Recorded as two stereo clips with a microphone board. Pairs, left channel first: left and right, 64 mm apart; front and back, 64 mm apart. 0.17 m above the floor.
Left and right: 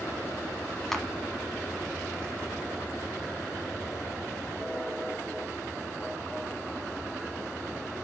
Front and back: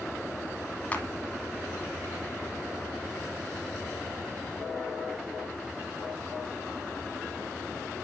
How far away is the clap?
About 1.1 m.